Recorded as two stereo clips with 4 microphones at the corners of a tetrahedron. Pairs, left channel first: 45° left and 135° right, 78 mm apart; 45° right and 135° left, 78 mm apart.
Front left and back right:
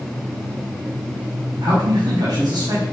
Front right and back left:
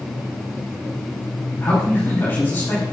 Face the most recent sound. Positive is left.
turn(degrees=-110)